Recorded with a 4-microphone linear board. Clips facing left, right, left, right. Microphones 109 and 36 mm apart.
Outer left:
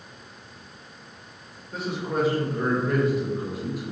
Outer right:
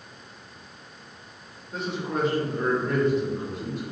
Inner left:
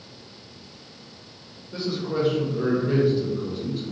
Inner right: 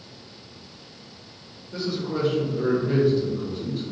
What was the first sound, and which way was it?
A man speaking, 5° left (ahead or behind).